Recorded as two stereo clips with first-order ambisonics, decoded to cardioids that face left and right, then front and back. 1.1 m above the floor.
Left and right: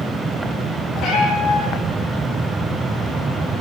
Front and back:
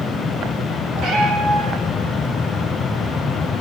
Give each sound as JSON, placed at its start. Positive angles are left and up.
{"t": 1.0, "sound": "a cat meowing", "azimuth_deg": 140, "distance_m": 8.5}